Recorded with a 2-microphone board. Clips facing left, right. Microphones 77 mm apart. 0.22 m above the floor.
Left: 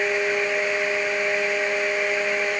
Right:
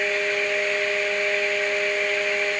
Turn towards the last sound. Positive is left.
No sound to turn to.